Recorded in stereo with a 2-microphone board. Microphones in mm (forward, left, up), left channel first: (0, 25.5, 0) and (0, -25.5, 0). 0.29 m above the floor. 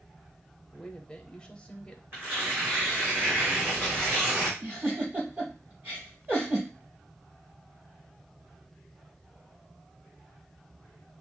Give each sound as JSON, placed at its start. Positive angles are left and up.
{"t": 0.7, "sound": "a woman speaking", "side_deg": 20, "distance_m": 0.9}
{"t": 2.1, "sound": "tearing paper", "side_deg": -40, "distance_m": 3.5}
{"t": 4.6, "sound": "a giggle", "side_deg": -40, "distance_m": 3.5}